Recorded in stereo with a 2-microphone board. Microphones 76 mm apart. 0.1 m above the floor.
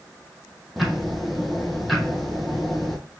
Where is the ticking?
Centre (ahead or behind), 1.0 m.